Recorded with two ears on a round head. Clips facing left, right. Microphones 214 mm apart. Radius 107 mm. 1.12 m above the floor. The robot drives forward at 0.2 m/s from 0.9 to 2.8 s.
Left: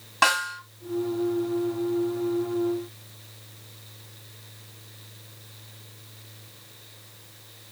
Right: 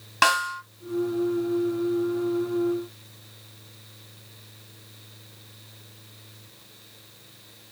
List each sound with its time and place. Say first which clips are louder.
0.2 s a snare drum: right 1 dB; 40° right (ahead or behind), 2 m